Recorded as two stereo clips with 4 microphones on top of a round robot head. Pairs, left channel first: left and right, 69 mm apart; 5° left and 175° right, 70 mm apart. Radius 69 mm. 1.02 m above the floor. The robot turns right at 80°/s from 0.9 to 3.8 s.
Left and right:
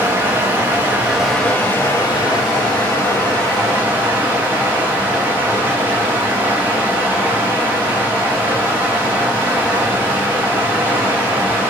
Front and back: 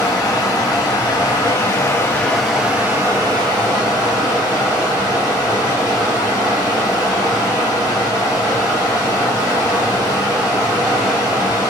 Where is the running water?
30° right, 1.9 m; by 11.7 s 155° right, 1.9 m.